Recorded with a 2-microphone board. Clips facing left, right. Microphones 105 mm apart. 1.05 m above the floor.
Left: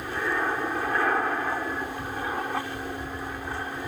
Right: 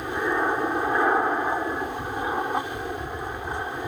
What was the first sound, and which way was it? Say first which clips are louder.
An aircraft: right 3 dB; 20° right (ahead or behind).